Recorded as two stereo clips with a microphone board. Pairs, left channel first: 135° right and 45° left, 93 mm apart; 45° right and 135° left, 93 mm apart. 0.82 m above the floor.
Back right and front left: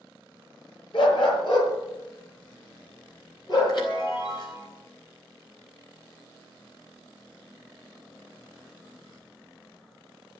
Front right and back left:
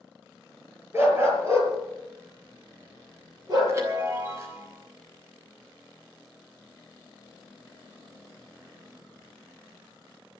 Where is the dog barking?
165° right, 6 m; by 3.8 s straight behind, 7.5 m.